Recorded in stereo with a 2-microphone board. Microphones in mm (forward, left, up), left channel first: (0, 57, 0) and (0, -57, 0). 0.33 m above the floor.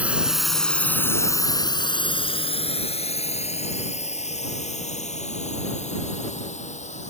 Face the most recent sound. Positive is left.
turn(degrees=85)